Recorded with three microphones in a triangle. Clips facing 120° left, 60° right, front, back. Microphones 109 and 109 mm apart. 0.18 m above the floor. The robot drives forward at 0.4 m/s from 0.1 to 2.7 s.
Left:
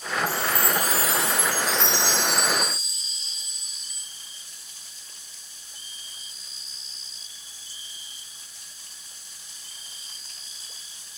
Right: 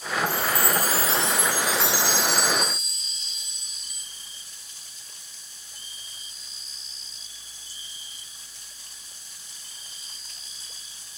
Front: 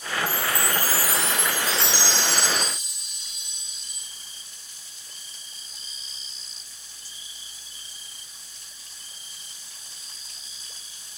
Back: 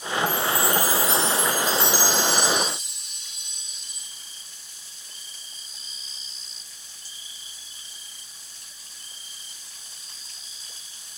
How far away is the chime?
About 0.6 m.